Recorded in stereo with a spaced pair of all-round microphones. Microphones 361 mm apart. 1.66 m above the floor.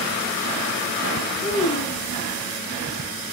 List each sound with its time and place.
1.4 s a child speaking: 20° left (ahead or behind), 0.8 m